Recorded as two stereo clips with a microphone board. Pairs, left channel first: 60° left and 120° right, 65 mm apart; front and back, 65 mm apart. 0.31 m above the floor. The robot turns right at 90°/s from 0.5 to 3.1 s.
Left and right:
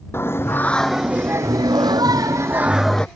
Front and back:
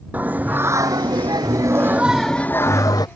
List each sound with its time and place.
0.1 s singing: 115° left; by 3.1 s 15° right